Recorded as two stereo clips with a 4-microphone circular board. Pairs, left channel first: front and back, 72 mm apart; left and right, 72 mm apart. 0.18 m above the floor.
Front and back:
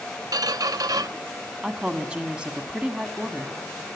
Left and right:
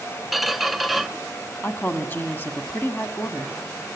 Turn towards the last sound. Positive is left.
turn(degrees=120)